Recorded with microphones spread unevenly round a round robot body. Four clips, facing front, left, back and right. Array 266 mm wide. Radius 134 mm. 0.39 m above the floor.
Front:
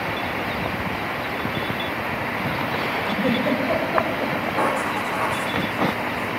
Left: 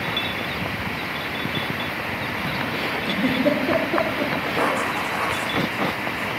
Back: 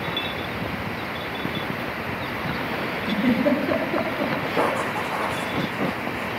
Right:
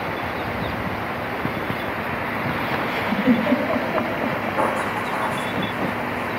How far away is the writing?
About 7.5 m.